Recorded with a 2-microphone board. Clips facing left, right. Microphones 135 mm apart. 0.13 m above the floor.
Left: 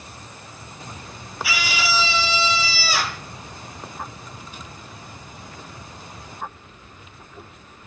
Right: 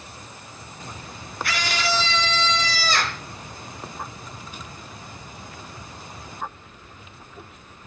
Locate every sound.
1.4 s a scream: 5° left (ahead or behind), 2.5 m